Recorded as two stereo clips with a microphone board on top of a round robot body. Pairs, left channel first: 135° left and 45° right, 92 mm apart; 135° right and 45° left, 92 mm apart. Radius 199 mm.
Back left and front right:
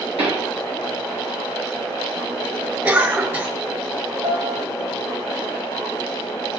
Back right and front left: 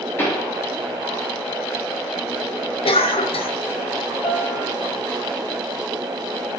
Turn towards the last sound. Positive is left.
turn(degrees=-60)